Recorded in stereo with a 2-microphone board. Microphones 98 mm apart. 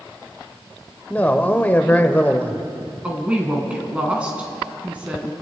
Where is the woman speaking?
10° right (ahead or behind), 3 m.